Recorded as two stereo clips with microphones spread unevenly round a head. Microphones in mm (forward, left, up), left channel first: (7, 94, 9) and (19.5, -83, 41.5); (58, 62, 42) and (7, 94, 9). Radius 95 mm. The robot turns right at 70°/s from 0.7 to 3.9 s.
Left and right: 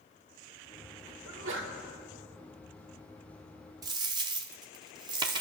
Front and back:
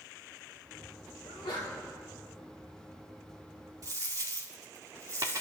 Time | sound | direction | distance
1.2 | a sneeze | 85° right | 2.5 m
3.8 | a dropped coin | 135° right | 0.7 m